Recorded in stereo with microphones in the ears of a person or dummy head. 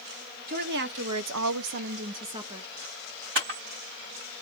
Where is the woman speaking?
50° right (ahead or behind), 1.0 m; by 2.7 s 15° right (ahead or behind), 1.0 m.